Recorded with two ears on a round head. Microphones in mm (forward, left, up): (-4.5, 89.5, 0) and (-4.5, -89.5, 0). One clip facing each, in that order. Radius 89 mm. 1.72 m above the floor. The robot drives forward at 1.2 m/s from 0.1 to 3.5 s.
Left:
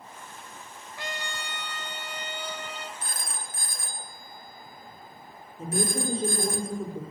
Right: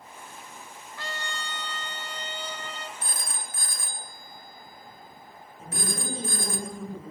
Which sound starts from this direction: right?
A phone ringing, at 3.0 s.